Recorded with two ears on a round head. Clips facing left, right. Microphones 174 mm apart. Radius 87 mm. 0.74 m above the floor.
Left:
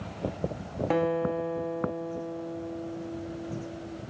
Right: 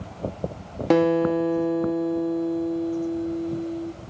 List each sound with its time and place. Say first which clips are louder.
0.9 s a guitar: right 8 dB; 55° right (ahead or behind), 0.8 m